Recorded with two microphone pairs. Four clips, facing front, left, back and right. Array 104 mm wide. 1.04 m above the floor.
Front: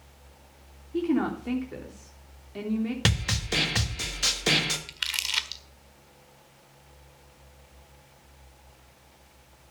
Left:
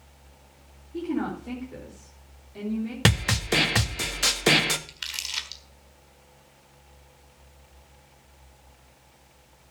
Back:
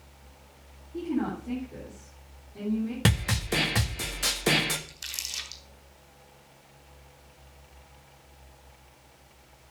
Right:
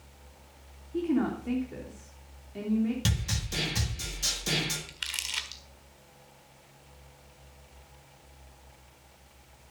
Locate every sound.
0.9 s a woman speaking: straight ahead, 3 m
3.0 s a snare drum: 90° left, 1.4 m
4.9 s crumpling: 5° left, 1.5 m